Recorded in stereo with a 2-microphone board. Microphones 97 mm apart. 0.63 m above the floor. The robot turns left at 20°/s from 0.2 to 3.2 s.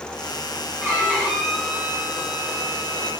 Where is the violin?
155° right, 1.1 m; by 3.1 s 160° left, 1.1 m.